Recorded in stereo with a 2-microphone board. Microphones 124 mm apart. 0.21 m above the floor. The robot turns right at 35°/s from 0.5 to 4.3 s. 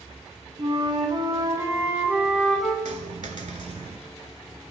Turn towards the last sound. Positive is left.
turn(degrees=-50)